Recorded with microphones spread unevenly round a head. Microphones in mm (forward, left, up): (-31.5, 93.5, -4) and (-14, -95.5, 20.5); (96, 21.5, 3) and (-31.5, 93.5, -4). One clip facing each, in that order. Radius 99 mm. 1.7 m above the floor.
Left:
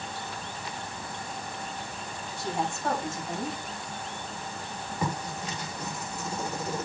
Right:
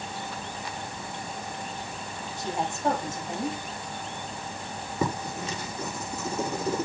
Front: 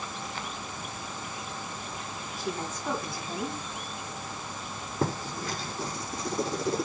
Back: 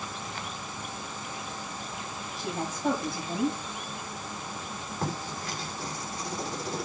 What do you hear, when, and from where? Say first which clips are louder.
2.4 s a woman speaking: even, back 1 dB; 155° right, 7.5 m
5.0 s writing: right 4 dB, front 4 dB; 60° right, 4 m